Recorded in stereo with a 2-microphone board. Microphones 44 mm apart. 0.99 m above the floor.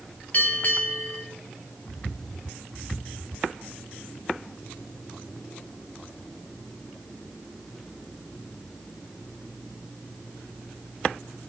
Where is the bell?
40° left (ahead or behind), 4 m.